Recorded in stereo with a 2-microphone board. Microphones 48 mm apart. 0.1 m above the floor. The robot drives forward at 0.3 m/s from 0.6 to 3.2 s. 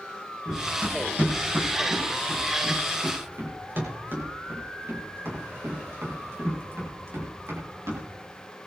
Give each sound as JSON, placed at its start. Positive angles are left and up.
{"t": 0.5, "sound": "running footsteps", "side_deg": -30, "distance_m": 8.5}